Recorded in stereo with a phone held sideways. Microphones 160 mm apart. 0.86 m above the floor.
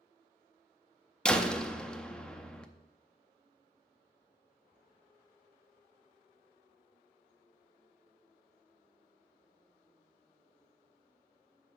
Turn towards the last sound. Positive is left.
turn(degrees=5)  # may be behind; listen again after turning